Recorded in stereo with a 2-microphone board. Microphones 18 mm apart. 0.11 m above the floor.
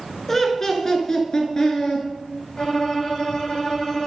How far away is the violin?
About 1.5 m.